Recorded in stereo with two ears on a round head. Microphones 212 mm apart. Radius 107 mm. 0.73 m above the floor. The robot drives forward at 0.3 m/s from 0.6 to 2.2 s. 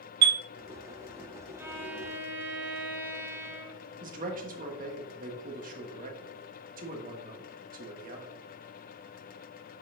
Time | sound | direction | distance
0.2 | a chime | 80° right | 0.6 m
1.6 | a violin | 10° right (ahead or behind) | 1.0 m
4.0 | a man speaking | 35° right (ahead or behind) | 1.4 m